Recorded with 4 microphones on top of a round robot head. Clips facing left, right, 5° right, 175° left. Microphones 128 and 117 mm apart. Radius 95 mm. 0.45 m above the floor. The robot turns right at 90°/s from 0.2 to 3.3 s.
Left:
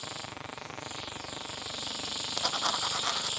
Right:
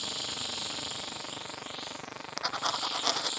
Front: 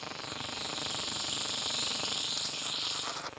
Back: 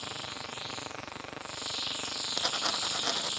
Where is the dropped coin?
155° left; by 3.3 s 120° right.